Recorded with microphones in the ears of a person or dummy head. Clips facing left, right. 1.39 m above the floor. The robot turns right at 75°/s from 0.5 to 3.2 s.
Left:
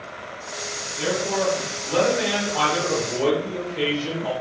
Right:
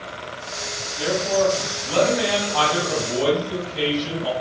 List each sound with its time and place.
1.0 s a man speaking: 145° left, 1.9 m; by 4.3 s 50° right, 1.9 m